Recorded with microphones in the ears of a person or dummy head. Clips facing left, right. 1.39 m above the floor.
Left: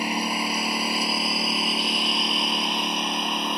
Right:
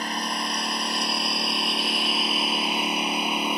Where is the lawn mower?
15° left (ahead or behind); by 3.6 s centre (ahead or behind).